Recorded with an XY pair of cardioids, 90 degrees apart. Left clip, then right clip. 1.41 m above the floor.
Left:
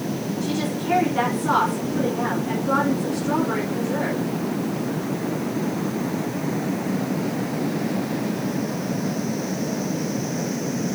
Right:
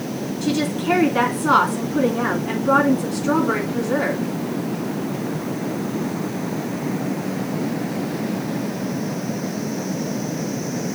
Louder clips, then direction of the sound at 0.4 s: Right 6 dB; 65° right.